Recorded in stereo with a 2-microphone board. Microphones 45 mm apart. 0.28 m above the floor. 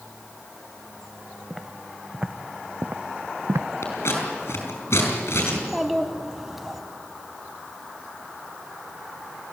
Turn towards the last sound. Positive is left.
turn(degrees=-5)  # may be behind; listen again after turning